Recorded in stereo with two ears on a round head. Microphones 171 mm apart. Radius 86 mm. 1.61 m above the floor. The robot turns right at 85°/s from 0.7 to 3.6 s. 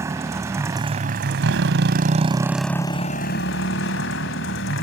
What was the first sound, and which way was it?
A motorcycle, 165° right.